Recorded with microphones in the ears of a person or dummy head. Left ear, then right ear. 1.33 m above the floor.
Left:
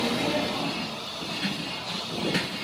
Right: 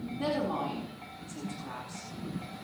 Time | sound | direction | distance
0.2 | a woman speaking | 45° right (ahead or behind) | 4 m